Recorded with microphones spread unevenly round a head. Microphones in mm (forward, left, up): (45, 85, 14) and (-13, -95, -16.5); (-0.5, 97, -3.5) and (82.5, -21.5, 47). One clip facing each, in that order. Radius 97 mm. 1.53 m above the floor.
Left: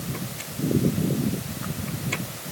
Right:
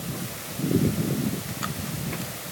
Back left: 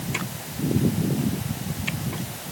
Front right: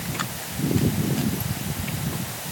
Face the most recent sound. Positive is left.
No sound to turn to.